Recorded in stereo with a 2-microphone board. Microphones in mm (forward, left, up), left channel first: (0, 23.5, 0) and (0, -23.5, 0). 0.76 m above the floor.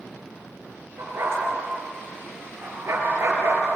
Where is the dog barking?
60° right (ahead or behind), 6 m.